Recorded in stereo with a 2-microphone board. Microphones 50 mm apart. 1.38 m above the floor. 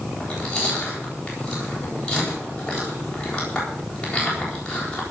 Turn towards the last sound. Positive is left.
turn(degrees=15)  # may be behind; listen again after turning